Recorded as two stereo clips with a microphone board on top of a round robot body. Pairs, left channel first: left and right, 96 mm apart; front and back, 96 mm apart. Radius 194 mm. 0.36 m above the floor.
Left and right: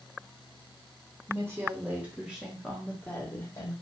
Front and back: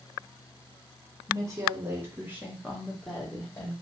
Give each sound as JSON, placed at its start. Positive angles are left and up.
{"t": 1.3, "sound": "a woman speaking", "azimuth_deg": -140, "distance_m": 1.5}